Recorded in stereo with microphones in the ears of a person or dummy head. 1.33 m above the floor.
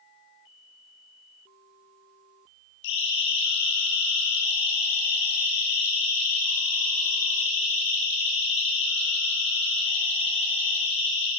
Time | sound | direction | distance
2.8 | a siren | 75° left (ahead or behind) | 10 m